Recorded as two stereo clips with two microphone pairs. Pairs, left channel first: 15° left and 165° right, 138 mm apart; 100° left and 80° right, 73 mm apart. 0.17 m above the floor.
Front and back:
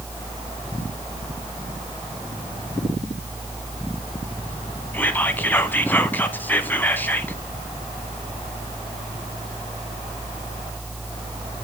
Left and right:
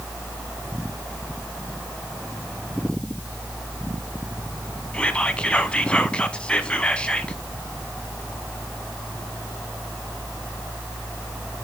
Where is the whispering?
60° left, 1.0 m.